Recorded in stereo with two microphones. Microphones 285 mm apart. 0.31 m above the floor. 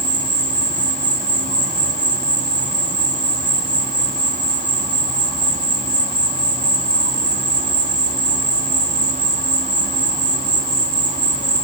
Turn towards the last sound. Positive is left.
turn(degrees=-25)  # may be behind; listen again after turning